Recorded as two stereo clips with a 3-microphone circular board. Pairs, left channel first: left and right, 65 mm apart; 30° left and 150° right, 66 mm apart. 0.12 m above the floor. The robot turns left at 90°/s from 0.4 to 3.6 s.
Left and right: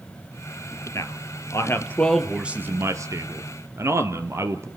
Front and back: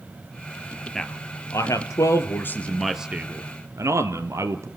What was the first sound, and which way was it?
A man speaking, 115° left.